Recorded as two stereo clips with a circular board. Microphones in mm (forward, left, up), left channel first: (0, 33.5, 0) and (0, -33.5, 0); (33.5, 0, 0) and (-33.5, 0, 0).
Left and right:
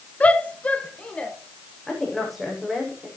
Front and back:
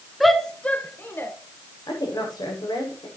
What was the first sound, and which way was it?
A shout, 90° left.